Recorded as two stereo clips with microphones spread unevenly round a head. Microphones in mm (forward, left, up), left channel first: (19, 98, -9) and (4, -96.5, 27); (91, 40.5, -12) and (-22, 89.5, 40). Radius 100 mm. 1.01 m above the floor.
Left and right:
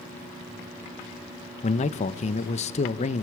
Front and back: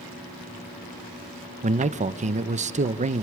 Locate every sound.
1.6 s a man speaking: 120° left, 1.0 m